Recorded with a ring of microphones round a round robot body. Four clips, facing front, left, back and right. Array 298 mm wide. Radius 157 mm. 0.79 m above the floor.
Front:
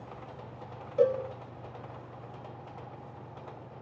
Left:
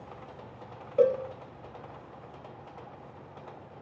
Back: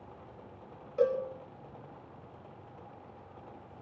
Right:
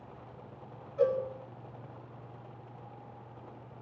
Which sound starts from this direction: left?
A cowbell, at 1.0 s.